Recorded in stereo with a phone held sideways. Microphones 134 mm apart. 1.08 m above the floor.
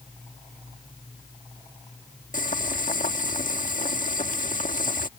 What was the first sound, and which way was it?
Boiling, 75° left (ahead or behind).